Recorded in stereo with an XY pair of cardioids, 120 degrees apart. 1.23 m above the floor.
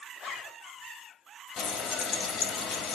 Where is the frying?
70° left, 1.8 m.